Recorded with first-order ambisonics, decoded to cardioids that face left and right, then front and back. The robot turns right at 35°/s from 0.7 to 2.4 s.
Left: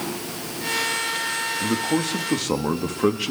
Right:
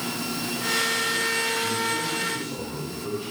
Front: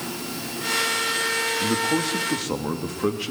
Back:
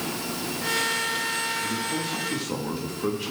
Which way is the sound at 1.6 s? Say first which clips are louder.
Left 2 dB, front 5 dB; 45° left.